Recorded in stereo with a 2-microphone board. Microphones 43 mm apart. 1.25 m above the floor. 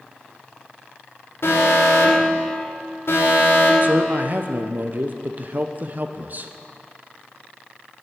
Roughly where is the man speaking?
Right.